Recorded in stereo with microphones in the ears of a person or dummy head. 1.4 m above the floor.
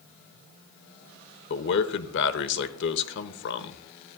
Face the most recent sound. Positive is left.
turn(degrees=55)  # may be behind; listen again after turning